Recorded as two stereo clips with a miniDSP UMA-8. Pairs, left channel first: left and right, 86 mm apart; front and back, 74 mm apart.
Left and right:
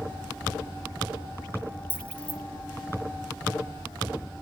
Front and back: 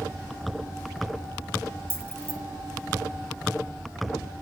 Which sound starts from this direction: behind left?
Keys jangling, at 1.9 s.